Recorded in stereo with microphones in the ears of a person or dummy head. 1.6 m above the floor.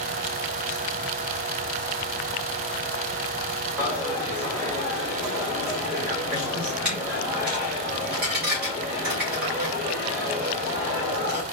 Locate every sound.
3.8 s a dropped coin: centre (ahead or behind), 1.3 m